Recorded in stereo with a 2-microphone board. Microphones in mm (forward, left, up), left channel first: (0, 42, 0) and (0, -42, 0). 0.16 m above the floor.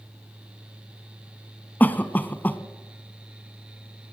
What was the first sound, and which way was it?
A cough, 20° left (ahead or behind).